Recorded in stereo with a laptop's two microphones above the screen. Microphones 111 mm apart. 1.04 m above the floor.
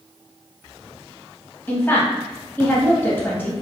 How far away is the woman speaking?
About 1.5 m.